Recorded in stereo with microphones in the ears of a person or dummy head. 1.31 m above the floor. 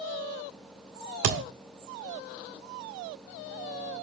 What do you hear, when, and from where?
1.2 s a thud: 50° right (ahead or behind), 1.3 m